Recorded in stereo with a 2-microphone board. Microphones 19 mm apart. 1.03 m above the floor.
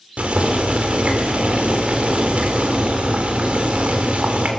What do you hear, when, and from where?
0.2 s boiling: 80° right, 3.5 m